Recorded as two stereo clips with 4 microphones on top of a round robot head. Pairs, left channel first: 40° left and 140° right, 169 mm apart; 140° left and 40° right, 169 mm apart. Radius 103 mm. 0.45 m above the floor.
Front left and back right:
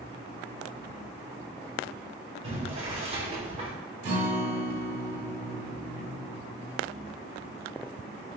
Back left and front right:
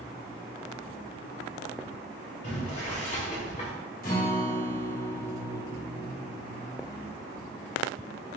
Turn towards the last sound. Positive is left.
turn(degrees=175)